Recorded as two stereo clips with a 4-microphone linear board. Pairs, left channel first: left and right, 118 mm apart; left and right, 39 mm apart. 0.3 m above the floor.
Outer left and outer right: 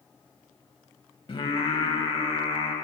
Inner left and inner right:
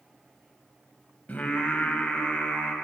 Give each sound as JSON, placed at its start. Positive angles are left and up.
{"t": 1.3, "sound": "singing", "side_deg": 45, "distance_m": 0.8}